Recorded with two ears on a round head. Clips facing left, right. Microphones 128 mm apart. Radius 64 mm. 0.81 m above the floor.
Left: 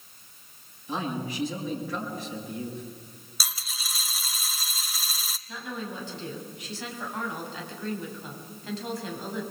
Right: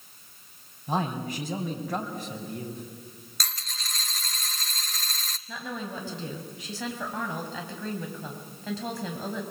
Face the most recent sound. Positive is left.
turn(degrees=-70)  # may be behind; listen again after turning